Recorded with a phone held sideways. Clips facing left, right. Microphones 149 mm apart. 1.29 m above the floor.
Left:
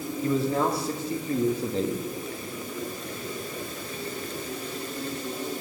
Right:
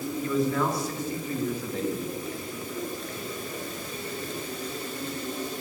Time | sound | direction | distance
0.2 | a man speaking | 30° left (ahead or behind) | 2.5 m